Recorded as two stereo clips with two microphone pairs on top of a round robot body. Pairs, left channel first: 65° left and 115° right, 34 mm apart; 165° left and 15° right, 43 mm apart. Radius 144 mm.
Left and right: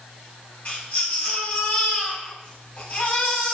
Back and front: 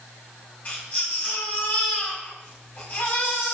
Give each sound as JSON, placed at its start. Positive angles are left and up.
{"t": 0.7, "sound": "a baby crying", "azimuth_deg": 110, "distance_m": 5.5}